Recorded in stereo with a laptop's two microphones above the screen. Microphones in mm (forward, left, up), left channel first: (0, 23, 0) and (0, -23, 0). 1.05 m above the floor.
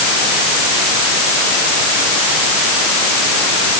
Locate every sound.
Only background noise.